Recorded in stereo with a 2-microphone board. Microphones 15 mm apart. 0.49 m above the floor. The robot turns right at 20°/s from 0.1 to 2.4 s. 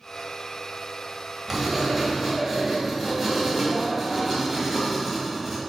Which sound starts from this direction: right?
Writing, at 1.5 s.